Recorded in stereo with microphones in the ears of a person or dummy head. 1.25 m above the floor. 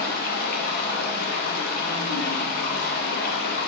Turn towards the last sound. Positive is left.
turn(degrees=60)  # may be behind; listen again after turning